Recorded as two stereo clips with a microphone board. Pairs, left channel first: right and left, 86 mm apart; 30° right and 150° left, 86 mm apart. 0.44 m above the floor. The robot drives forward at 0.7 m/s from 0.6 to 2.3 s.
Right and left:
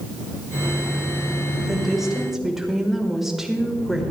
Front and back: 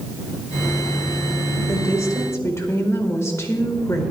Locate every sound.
1.7 s a woman speaking: 5° left, 2 m